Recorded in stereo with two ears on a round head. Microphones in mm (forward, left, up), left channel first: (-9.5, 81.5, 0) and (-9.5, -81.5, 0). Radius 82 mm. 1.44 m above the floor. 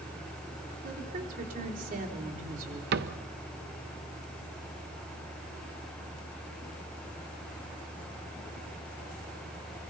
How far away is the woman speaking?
About 4 m.